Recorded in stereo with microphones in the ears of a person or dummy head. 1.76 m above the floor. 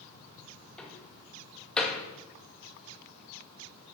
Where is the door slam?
5° left (ahead or behind), 1.4 m.